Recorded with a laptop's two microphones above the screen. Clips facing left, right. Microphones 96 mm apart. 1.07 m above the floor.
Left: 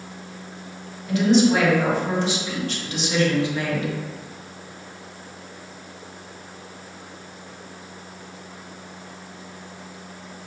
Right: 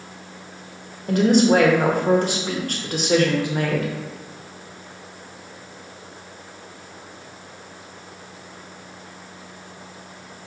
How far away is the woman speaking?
About 0.7 m.